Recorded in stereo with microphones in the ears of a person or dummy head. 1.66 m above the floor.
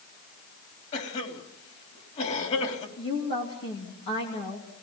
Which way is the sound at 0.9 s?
40° left (ahead or behind).